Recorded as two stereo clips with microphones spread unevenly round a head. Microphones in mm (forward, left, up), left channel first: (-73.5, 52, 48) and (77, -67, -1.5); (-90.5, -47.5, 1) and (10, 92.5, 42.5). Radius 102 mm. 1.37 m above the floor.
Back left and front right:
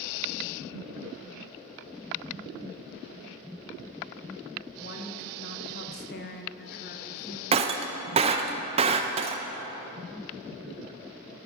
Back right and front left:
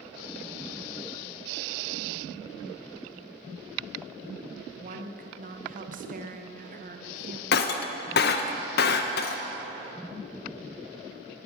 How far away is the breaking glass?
About 0.5 m.